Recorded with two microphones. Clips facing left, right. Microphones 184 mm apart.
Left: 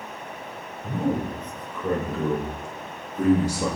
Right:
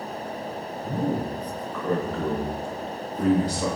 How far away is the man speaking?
About 3 m.